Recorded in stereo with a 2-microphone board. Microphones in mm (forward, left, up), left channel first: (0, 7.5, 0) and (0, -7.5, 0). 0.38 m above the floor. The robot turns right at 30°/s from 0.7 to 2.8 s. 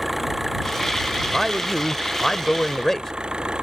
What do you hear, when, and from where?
0.0 s an engine running: 160° right; by 3.6 s 100° right
1.2 s a man speaking: 10° right; by 3.1 s 40° left